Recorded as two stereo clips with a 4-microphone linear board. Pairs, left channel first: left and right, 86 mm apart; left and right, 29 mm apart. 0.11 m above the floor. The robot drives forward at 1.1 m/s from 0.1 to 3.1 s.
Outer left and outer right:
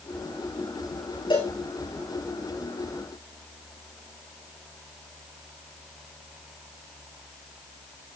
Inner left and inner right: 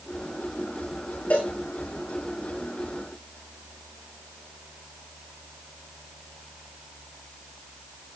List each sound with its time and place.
1.3 s a cowbell: 75° left (ahead or behind), 6 m